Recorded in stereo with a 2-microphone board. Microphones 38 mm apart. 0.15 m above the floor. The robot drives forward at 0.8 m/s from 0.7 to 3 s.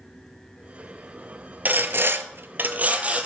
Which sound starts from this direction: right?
Sawing, at 1.6 s.